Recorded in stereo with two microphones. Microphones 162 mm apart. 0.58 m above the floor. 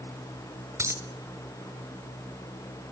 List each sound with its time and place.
0.8 s a dropped coin: 15° right (ahead or behind), 1.0 m